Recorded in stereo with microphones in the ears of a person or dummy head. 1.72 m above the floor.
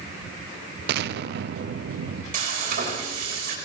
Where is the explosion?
60° right (ahead or behind), 0.7 m.